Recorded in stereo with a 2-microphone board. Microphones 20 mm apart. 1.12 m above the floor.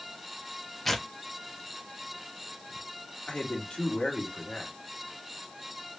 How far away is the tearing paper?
About 0.8 m.